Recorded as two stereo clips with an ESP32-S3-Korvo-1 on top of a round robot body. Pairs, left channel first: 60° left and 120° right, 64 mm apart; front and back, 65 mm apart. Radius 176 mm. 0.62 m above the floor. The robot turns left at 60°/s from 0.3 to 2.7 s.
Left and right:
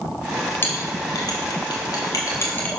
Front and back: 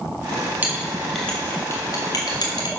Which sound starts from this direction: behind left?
A clink, at 0.6 s.